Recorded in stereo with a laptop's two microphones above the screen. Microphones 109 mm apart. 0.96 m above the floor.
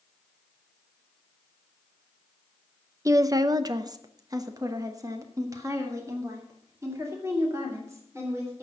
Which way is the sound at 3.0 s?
30° right (ahead or behind).